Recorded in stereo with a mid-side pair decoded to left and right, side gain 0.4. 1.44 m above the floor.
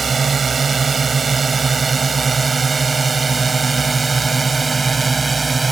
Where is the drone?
45° right; by 5.7 s 30° right.